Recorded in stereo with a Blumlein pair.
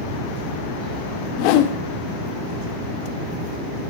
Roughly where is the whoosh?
Ahead left.